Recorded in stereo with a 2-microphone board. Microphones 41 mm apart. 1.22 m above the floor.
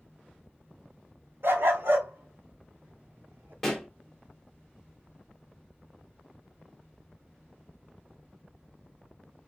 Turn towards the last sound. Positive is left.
turn(degrees=10)  # may be behind; listen again after turning